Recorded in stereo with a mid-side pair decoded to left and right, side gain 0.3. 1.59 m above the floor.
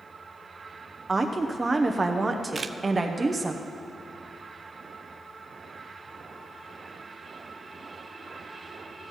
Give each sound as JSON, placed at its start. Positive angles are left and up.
{"t": 1.1, "sound": "a woman speaking", "azimuth_deg": -40, "distance_m": 0.8}
{"t": 2.5, "sound": "a camera shutter", "azimuth_deg": -50, "distance_m": 0.5}